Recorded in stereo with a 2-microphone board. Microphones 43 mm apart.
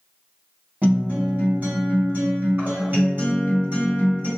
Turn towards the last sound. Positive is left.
turn(degrees=-40)  # may be behind; listen again after turning